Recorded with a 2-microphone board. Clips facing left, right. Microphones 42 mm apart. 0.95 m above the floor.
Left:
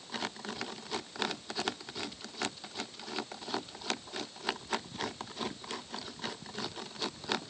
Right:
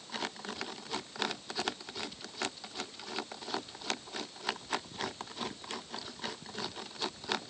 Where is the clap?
I don't hear a clap.